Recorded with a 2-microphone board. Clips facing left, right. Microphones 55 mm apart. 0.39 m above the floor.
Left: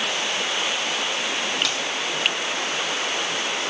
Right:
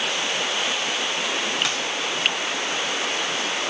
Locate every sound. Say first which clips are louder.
1.6 s a finger snap: right 1 dB; 25° right (ahead or behind), 2 m